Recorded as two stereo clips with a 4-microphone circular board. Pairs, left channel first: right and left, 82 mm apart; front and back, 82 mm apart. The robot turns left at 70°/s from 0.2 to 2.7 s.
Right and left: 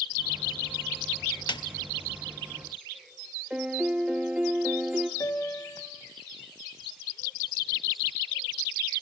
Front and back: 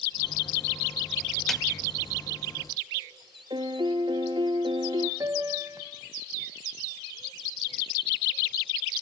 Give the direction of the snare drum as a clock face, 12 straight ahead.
3 o'clock.